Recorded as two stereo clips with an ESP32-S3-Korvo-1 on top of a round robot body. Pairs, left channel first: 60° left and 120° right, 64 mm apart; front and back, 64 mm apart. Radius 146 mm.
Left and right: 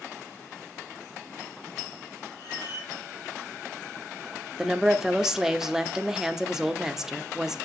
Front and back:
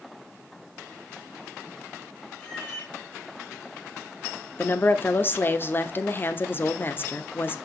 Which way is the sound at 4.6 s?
40° right.